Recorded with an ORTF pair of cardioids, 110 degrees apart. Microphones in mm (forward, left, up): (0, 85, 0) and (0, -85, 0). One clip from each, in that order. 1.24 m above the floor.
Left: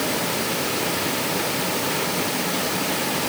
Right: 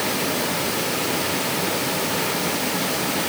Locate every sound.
Only background noise.